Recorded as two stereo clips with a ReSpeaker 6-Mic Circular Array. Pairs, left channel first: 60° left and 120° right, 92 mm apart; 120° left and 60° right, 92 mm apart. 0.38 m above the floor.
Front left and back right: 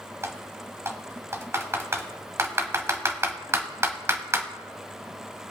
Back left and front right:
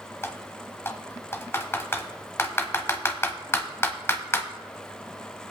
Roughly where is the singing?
I don't hear singing.